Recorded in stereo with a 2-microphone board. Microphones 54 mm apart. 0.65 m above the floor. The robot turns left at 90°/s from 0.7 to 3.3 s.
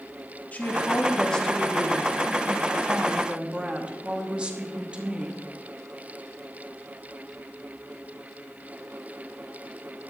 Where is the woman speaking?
30° left (ahead or behind), 1.2 m; by 5.4 s 15° right (ahead or behind), 1.2 m.